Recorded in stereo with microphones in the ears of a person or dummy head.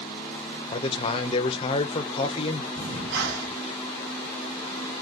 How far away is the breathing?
About 1.8 m.